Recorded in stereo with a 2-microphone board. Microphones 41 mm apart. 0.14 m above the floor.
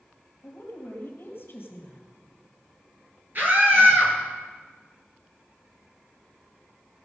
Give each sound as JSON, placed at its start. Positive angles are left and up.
{"t": 0.4, "sound": "a woman speaking", "side_deg": 50, "distance_m": 3.5}
{"t": 3.4, "sound": "a scream", "side_deg": -50, "distance_m": 3.0}